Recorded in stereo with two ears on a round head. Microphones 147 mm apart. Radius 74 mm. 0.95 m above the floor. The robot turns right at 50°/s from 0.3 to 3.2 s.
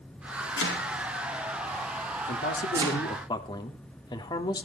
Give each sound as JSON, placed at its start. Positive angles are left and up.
{"t": 0.6, "sound": "chopping", "side_deg": 85, "distance_m": 4.5}
{"t": 2.3, "sound": "a man speaking", "azimuth_deg": 105, "distance_m": 2.5}